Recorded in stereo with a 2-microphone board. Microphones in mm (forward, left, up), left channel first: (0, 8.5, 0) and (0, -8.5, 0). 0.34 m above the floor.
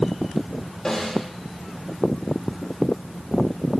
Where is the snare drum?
20° left (ahead or behind), 5.5 m.